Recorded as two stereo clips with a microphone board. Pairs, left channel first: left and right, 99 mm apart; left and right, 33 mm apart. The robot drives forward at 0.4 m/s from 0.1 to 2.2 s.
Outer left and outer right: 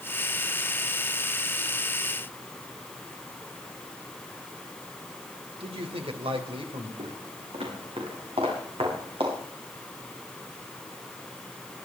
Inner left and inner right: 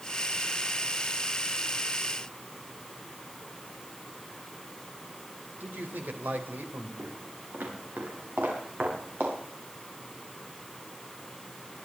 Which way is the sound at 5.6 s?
75° right (ahead or behind).